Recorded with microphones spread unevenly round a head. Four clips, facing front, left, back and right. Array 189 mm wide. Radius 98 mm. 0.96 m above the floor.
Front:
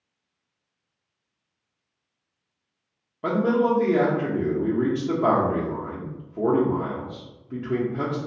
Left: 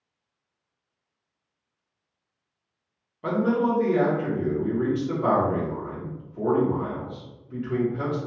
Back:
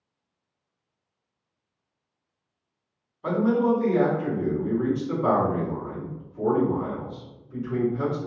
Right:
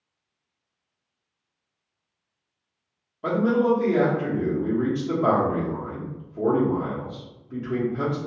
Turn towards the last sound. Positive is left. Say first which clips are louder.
# right 2 dB, front 1 dB
turn(degrees=-5)